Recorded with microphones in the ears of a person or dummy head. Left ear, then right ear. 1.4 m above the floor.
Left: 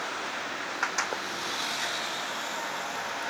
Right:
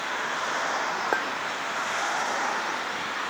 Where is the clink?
70° right (ahead or behind).